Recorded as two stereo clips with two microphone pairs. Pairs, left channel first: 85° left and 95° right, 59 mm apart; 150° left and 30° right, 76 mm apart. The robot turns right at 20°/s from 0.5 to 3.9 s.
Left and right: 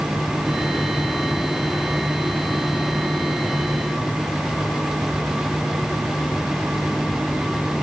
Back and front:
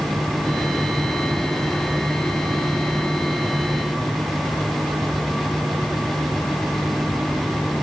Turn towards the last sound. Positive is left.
No sound to turn to.